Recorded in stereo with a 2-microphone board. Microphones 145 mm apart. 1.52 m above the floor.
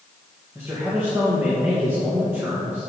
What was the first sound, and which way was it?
A man speaking, 15° right (ahead or behind).